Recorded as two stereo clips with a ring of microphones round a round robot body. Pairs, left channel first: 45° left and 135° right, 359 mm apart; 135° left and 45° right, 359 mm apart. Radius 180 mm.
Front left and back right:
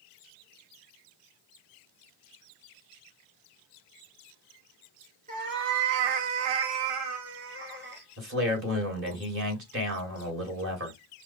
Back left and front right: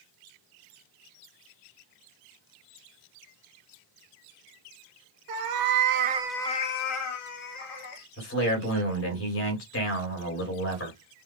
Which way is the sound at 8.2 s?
Straight behind.